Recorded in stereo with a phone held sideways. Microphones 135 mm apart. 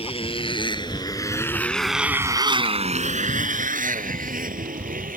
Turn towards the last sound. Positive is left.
turn(degrees=-85)